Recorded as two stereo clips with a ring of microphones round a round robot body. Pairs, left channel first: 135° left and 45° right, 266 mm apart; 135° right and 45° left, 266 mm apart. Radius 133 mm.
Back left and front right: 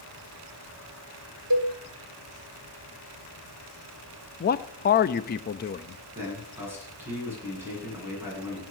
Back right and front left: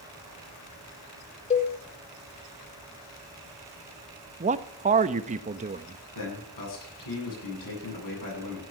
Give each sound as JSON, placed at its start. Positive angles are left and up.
{"t": 1.5, "sound": "a cowbell", "azimuth_deg": -70, "distance_m": 1.7}
{"t": 4.4, "sound": "a man speaking", "azimuth_deg": 95, "distance_m": 0.8}
{"t": 6.2, "sound": "a man speaking", "azimuth_deg": -125, "distance_m": 9.5}